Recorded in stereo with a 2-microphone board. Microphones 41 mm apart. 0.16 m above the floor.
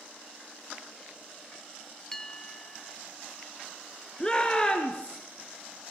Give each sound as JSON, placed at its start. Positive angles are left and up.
{"t": 2.1, "sound": "a bell", "side_deg": 10, "distance_m": 0.9}
{"t": 4.2, "sound": "a shout", "side_deg": 20, "distance_m": 2.0}